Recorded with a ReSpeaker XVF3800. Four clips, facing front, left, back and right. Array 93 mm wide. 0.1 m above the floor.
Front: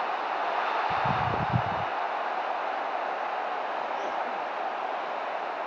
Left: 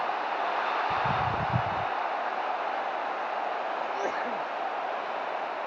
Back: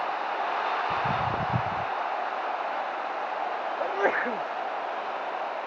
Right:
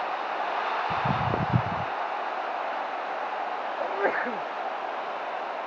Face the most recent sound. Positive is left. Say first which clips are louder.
# right 3 dB, back 4 dB
turn(degrees=-145)